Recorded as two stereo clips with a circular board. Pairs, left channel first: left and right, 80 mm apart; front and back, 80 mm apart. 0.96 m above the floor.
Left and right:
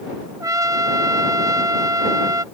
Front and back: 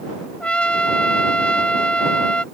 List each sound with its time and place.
0.4 s a trumpet: 70° right